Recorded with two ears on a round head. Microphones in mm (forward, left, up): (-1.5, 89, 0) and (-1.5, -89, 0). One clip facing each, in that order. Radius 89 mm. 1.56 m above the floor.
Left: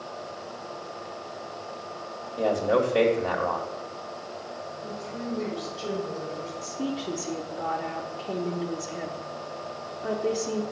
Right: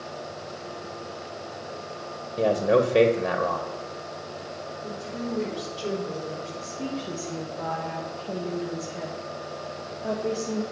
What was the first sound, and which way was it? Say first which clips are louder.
A man speaking: right 2 dB; 25° right (ahead or behind).